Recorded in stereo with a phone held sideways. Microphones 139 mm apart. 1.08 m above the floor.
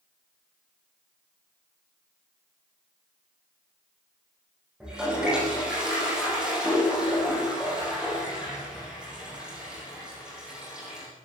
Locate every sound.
4.8 s a toilet flushing: 5° right (ahead or behind), 9 m